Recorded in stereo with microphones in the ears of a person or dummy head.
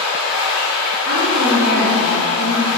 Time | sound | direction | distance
0.0 | running water | 50° left (ahead or behind) | 0.8 m
1.1 | a woman speaking | 70° left (ahead or behind) | 1.2 m